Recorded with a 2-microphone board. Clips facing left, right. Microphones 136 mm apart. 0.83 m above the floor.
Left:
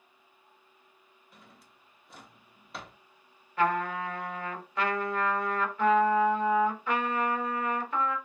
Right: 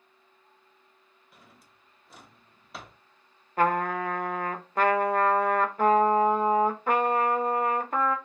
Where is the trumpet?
45° right (ahead or behind), 0.6 m.